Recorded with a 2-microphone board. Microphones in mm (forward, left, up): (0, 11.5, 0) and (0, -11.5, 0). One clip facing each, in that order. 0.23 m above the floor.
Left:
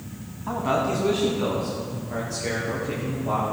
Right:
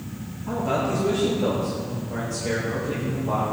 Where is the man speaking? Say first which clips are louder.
Left 1 dB; 45° left (ahead or behind), 1.9 m; by 3.4 s 70° left (ahead or behind), 5.5 m.